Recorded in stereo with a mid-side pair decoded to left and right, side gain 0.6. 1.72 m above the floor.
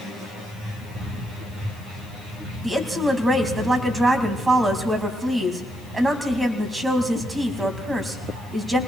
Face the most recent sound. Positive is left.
turn(degrees=-20)